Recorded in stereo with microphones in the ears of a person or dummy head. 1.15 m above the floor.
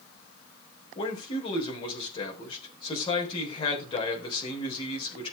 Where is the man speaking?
30° left (ahead or behind), 3.5 m.